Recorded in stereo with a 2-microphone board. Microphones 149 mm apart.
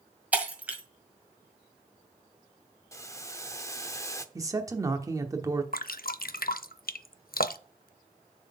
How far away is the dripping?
About 0.5 m.